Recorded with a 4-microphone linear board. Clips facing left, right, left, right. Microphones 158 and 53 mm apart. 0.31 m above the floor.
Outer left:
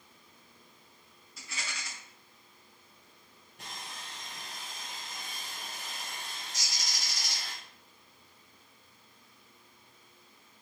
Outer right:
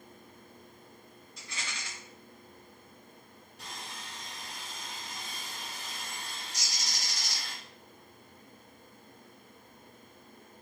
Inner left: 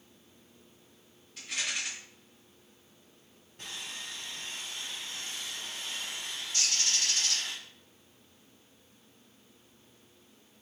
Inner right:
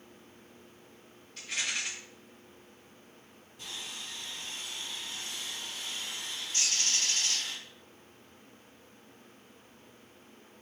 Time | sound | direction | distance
1.4 | a rattle | centre (ahead or behind) | 2 m
3.6 | sawing | 55° left (ahead or behind) | 2 m
6.5 | a bird | 35° right (ahead or behind) | 2 m